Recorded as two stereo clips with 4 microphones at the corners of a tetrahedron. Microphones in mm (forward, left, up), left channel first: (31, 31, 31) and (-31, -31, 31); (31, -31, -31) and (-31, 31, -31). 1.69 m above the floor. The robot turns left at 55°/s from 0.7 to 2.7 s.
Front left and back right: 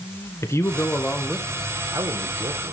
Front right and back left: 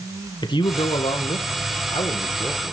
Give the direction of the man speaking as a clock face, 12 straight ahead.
12 o'clock.